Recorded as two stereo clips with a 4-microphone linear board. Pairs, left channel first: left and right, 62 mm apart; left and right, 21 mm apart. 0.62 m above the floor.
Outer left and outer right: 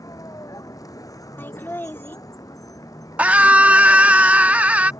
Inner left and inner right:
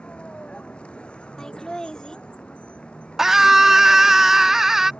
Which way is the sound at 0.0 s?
70° left (ahead or behind).